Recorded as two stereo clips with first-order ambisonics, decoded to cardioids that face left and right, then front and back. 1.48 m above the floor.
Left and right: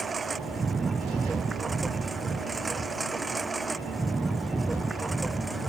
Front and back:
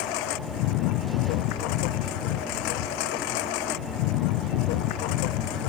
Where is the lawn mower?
15° right; by 5.7 s 5° right.